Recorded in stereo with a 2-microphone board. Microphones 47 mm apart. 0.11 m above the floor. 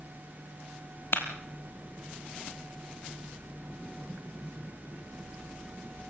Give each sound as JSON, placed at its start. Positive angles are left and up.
{"t": 1.1, "sound": "a clap", "side_deg": 60, "distance_m": 2.5}